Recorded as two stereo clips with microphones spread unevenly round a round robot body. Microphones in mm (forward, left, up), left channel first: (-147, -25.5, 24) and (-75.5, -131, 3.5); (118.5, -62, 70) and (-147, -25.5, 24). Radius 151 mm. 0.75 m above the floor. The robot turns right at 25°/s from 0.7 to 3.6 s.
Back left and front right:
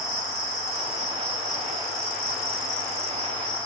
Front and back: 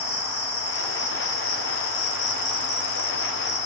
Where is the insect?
30° right, 1.8 m; by 3.7 s 45° left, 1.8 m.